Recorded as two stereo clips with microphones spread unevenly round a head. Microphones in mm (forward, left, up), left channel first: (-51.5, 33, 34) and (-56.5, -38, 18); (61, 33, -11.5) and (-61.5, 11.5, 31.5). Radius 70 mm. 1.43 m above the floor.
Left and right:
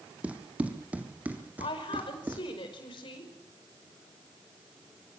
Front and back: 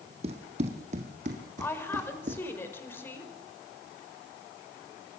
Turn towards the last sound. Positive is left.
turn(degrees=85)